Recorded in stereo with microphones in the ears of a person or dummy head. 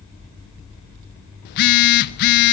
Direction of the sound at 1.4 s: 55° left (ahead or behind).